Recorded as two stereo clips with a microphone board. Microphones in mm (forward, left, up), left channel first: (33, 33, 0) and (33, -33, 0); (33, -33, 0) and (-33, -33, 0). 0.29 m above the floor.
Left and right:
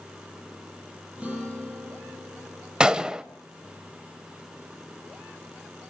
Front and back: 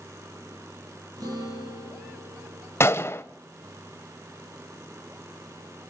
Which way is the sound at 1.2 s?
165° right.